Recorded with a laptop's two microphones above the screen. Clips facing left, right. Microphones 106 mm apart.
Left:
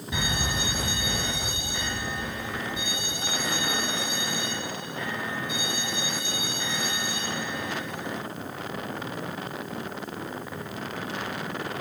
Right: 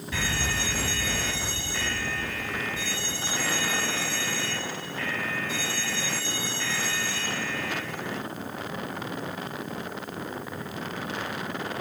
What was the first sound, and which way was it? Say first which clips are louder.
An alarm: left 1 dB; 15° left (ahead or behind).